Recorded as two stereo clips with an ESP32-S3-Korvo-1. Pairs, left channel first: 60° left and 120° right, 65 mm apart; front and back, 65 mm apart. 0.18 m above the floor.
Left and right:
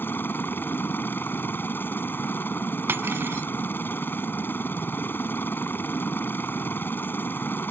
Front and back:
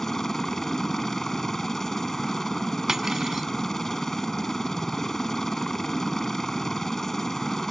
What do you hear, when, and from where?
0.0 s a helicopter: 80° left
2.9 s cutlery clinking: 100° right